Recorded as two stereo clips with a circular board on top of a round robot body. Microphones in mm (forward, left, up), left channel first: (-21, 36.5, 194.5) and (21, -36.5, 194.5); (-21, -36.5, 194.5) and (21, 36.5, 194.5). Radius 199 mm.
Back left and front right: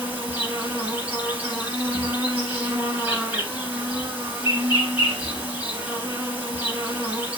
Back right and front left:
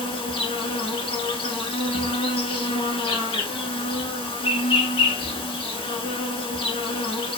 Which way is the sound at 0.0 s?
135° right.